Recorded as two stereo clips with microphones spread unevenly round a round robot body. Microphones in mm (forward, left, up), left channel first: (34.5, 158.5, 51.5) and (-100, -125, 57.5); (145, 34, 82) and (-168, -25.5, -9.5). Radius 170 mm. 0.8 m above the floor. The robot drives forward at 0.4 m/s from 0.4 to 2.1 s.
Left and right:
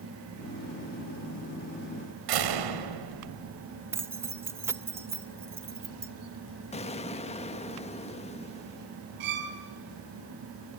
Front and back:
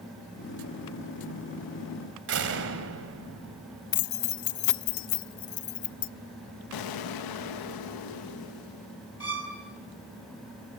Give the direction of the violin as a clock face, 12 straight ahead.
3 o'clock.